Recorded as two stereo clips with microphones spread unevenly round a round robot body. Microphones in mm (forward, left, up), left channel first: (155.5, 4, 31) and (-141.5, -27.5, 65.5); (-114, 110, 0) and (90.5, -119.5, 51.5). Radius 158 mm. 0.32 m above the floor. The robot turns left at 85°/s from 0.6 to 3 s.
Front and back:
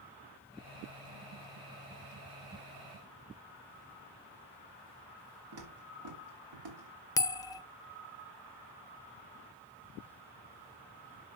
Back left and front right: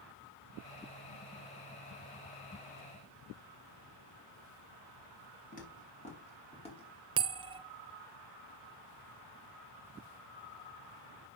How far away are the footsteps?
About 5.5 m.